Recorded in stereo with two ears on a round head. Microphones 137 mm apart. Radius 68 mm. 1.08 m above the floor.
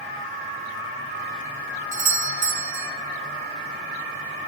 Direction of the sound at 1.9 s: 50° right (ahead or behind).